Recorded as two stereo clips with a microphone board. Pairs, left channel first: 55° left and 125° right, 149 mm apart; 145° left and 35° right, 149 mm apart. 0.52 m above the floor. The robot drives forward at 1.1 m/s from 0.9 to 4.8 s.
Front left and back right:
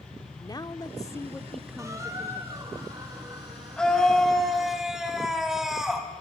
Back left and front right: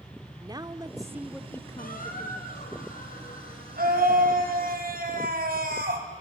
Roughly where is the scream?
Ahead right.